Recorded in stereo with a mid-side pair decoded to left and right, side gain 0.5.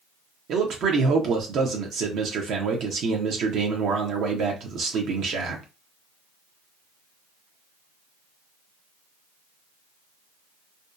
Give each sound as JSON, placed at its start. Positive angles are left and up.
{"t": 0.5, "sound": "a man speaking", "azimuth_deg": -65, "distance_m": 0.7}